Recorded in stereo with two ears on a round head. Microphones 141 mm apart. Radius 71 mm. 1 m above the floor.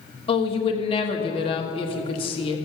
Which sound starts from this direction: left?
A woman speaking, at 0.3 s.